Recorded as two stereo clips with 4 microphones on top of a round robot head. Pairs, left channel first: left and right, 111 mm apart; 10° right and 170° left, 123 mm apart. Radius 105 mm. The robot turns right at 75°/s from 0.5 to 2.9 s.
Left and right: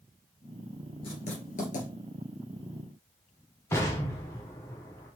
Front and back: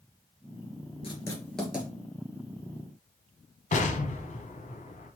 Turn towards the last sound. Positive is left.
turn(degrees=15)